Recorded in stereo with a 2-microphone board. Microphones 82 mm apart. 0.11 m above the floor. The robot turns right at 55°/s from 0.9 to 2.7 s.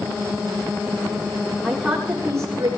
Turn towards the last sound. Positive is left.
turn(degrees=-125)